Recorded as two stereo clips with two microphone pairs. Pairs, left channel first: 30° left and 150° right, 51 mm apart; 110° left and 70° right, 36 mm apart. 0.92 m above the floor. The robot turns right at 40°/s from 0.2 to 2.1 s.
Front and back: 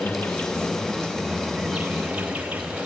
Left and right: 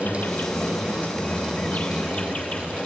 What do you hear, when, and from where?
0.0 s an insect: 70° left, 3 m; by 2.9 s 150° left, 3 m